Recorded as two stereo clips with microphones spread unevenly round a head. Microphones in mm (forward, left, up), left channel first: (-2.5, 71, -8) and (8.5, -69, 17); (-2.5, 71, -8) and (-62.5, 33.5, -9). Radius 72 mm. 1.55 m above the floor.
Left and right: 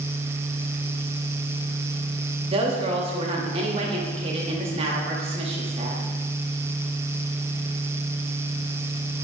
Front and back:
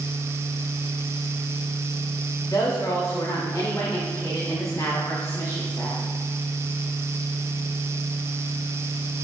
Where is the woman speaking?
35° right, 0.6 m.